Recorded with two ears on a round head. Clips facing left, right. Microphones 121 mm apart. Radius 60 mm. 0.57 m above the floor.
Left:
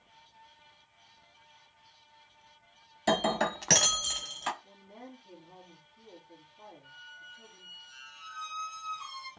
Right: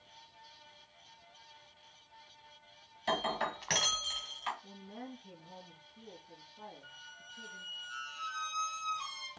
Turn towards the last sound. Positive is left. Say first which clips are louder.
# left 2 dB
turn(degrees=-75)  # may be behind; listen again after turning